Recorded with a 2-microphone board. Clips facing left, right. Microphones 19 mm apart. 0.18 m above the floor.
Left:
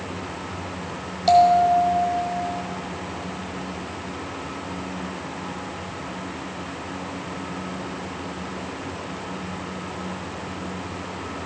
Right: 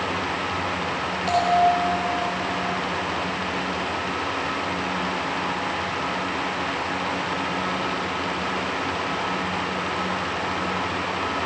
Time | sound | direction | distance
1.3 | a bell | 25° left (ahead or behind) | 5 m